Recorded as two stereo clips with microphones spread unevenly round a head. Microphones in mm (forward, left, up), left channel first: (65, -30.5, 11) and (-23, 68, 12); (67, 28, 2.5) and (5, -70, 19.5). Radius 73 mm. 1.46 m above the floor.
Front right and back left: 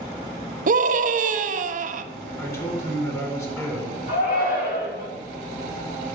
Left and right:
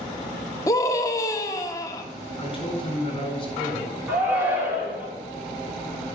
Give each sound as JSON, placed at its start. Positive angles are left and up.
{"t": 0.7, "sound": "a scream", "azimuth_deg": 120, "distance_m": 1.0}
{"t": 2.4, "sound": "a man speaking", "azimuth_deg": 15, "distance_m": 4.0}
{"t": 4.1, "sound": "a shout", "azimuth_deg": -50, "distance_m": 5.0}